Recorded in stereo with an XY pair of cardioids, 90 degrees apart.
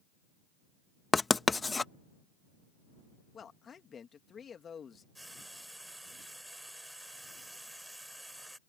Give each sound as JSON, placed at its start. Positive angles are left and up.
{"t": 1.1, "sound": "writing", "azimuth_deg": 25}
{"t": 3.3, "sound": "a man speaking", "azimuth_deg": 55}
{"t": 5.2, "sound": "frying", "azimuth_deg": -10}